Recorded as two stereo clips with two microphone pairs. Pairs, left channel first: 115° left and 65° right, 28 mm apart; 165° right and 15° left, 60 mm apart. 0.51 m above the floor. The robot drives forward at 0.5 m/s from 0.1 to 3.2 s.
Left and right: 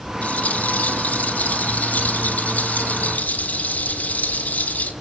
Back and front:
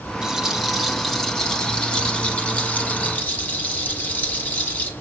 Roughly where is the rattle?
Left.